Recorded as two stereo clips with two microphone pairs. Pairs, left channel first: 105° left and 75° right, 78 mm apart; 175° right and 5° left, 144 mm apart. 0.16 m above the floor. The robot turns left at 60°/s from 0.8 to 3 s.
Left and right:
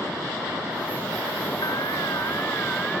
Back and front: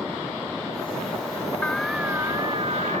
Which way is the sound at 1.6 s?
105° left.